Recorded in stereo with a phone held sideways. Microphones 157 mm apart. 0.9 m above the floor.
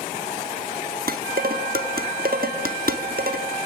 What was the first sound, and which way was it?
Dishes clattering, 70° right (ahead or behind).